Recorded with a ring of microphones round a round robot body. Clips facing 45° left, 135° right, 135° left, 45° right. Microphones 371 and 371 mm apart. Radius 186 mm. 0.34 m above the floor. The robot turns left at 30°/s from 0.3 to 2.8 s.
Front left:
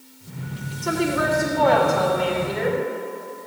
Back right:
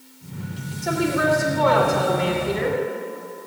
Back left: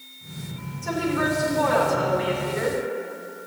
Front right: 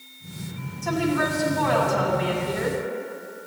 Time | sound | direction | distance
0.8 | a woman speaking | 35° right | 3 m